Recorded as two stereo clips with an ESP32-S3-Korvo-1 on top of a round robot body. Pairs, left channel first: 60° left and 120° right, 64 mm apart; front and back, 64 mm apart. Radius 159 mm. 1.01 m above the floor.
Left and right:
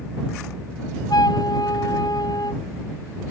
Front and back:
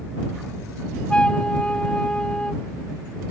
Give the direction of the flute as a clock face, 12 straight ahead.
10 o'clock.